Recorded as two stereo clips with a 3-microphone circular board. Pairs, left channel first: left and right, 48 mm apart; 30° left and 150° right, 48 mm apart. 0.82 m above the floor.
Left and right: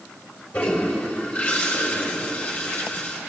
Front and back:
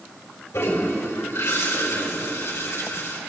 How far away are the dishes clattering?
No dishes clattering in this recording.